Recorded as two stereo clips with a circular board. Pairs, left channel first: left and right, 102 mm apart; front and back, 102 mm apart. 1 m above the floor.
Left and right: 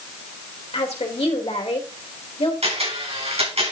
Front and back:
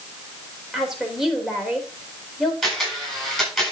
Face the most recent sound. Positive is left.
turn(degrees=-90)